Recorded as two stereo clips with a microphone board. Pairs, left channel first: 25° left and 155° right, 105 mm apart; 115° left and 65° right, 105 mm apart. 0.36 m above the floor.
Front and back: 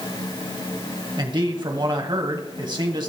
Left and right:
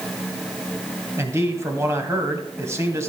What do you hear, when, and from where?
1.2 s a man speaking: 125° right, 1.9 m